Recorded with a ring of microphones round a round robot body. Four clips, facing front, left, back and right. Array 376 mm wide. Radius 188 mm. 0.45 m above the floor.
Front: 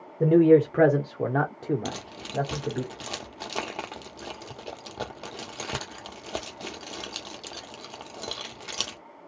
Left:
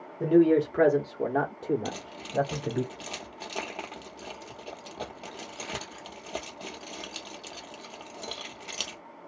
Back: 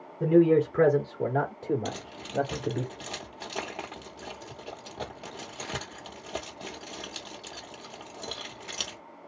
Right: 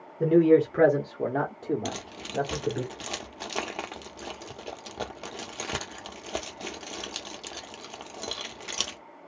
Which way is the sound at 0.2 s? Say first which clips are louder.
Right 2 dB, front 3 dB; 10° right.